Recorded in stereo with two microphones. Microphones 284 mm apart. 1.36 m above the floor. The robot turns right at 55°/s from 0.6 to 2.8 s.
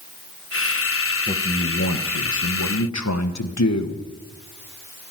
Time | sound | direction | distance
1.3 | a man speaking | 25° left | 1.2 m